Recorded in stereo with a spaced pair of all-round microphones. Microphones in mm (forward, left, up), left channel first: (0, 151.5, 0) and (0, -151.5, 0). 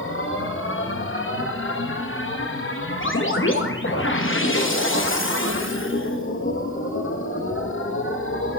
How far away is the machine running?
About 0.8 m.